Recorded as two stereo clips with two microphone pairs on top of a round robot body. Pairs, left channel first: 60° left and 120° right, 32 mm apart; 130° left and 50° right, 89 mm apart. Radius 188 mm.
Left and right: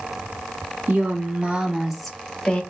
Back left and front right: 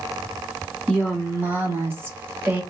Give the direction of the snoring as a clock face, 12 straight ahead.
I don't hear snoring.